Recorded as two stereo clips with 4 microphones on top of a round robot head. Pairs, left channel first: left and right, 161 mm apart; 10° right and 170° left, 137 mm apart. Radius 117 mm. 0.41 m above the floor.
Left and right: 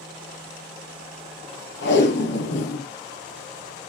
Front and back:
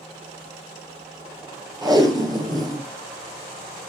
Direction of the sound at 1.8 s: 105° left.